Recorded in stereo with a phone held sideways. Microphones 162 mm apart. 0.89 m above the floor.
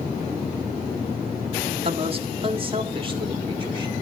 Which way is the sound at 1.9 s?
40° right (ahead or behind).